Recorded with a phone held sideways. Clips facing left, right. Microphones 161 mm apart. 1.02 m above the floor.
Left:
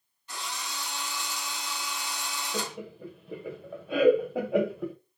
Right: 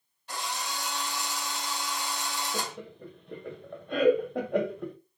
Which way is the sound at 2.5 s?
5° left (ahead or behind).